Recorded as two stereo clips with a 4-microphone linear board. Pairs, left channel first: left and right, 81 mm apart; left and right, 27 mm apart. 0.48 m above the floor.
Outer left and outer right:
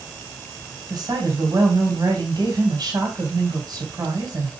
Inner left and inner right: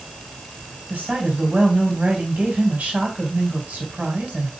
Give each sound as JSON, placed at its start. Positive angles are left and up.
{"t": 0.9, "sound": "a woman speaking", "side_deg": -60, "distance_m": 2.5}